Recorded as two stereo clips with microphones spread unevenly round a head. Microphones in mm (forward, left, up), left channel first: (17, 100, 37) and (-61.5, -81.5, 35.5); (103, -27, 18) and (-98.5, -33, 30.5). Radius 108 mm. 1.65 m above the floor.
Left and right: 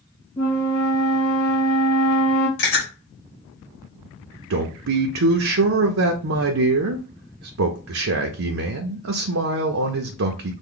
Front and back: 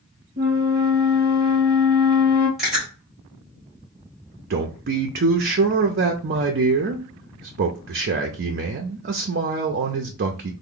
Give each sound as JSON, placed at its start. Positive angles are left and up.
{"t": 0.4, "sound": "a flute", "azimuth_deg": 135, "distance_m": 1.7}
{"t": 2.6, "sound": "chewing", "azimuth_deg": 95, "distance_m": 2.0}
{"t": 4.5, "sound": "a man speaking", "azimuth_deg": -135, "distance_m": 0.5}